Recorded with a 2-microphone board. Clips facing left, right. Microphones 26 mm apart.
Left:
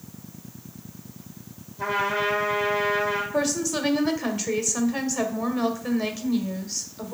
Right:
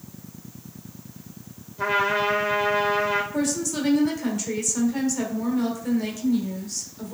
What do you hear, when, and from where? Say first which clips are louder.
1.8 s a trumpet: right 2 dB; 35° right (ahead or behind), 1.6 m
3.3 s a woman speaking: left 1 dB; 25° left (ahead or behind), 1.3 m